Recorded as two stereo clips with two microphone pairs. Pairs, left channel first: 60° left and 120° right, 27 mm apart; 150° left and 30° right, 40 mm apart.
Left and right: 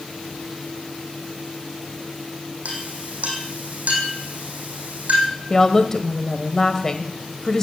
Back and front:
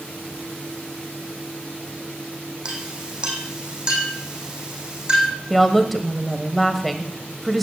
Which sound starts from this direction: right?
A clink, at 2.6 s.